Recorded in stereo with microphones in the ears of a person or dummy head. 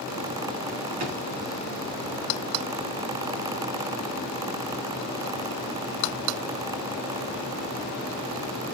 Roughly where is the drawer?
Right.